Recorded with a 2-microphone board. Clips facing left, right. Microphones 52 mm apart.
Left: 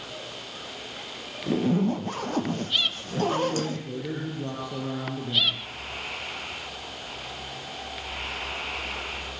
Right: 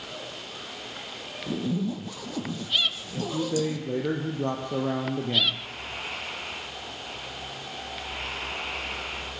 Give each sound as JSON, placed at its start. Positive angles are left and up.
{"t": 1.5, "sound": "a zipper", "side_deg": 45, "distance_m": 0.7}
{"t": 3.2, "sound": "a man speaking", "side_deg": -45, "distance_m": 3.0}